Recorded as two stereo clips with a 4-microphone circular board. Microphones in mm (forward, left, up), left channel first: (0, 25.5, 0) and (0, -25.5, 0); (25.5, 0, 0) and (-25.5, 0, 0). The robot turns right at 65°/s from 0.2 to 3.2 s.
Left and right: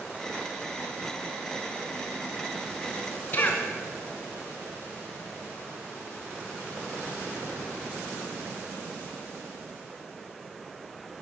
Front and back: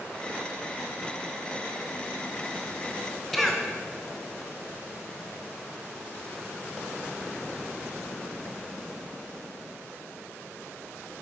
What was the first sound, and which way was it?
A cough, 85° left.